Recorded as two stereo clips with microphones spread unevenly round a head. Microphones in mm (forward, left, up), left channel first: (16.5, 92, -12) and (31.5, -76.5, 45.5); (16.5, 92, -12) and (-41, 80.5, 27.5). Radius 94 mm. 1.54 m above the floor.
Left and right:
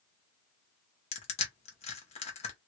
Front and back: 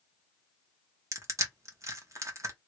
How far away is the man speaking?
I don't hear a man speaking.